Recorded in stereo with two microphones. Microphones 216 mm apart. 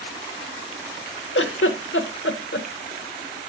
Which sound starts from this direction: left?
A giggle, at 1.4 s.